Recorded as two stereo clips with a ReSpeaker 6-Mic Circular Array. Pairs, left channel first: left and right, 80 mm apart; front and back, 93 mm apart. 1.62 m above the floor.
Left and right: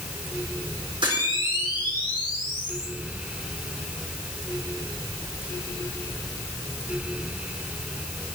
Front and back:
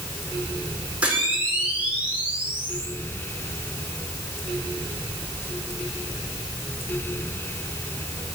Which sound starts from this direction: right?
A camera shutter, at 1.0 s.